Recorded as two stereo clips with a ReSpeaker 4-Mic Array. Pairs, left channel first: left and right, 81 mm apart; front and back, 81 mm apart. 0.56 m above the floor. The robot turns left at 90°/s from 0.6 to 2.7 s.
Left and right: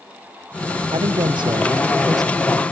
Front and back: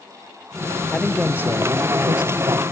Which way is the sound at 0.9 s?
70° right.